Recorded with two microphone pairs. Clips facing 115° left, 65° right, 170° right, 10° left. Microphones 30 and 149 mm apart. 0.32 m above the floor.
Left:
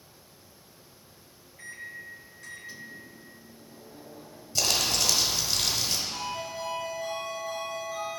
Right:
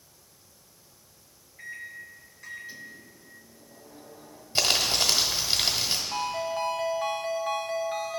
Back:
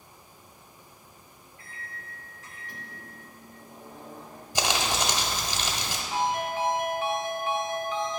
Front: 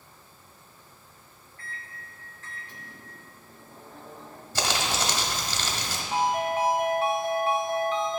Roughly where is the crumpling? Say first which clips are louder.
Right 2 dB, back 1 dB; right.